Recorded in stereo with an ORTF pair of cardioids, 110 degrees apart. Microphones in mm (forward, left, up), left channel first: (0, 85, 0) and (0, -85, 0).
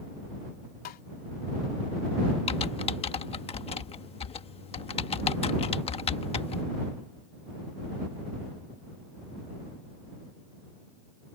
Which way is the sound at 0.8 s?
60° left.